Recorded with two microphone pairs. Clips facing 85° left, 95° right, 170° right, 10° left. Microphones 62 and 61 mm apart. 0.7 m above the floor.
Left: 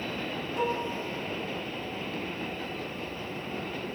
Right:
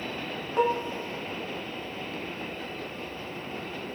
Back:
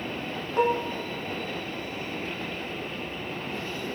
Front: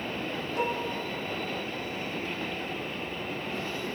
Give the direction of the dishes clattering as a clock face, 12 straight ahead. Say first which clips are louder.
Right 5 dB, back 7 dB; 4 o'clock.